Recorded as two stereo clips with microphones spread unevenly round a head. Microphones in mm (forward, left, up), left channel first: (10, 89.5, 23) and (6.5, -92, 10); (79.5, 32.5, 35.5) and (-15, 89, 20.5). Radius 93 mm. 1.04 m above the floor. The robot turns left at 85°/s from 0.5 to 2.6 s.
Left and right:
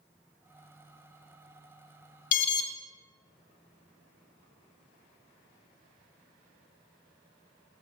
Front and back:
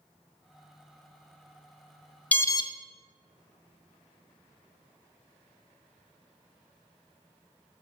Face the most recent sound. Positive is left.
turn(degrees=20)